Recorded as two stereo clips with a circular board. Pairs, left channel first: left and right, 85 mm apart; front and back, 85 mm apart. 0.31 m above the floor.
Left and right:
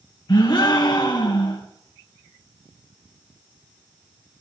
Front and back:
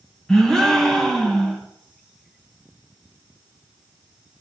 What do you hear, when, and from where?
0.3 s a gasp: 85° left, 1.8 m